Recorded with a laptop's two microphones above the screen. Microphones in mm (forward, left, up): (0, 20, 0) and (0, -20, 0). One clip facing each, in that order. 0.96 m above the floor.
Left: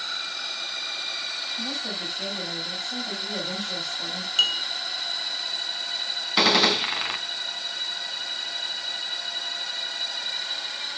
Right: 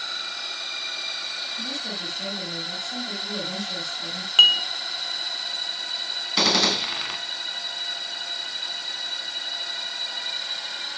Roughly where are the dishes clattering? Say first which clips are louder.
Right 8 dB; right.